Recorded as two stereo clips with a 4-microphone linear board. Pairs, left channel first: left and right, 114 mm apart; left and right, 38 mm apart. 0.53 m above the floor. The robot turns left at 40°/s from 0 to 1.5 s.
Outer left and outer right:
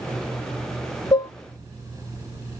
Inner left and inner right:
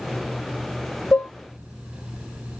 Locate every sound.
1.1 s dishes clattering: 35° left (ahead or behind), 0.5 m; by 1.3 s 40° left (ahead or behind), 0.5 m